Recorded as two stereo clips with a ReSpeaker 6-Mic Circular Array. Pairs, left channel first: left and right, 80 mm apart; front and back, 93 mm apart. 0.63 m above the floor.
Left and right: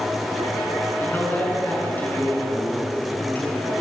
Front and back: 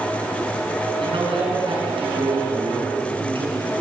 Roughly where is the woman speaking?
Behind left.